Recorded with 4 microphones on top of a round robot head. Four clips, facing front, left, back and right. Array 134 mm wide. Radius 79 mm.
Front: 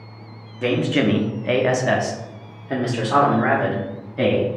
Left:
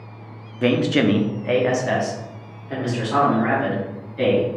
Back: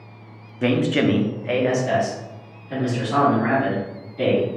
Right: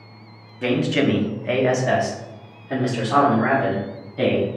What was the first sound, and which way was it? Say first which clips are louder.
A man speaking: left 2 dB, even; 125° left.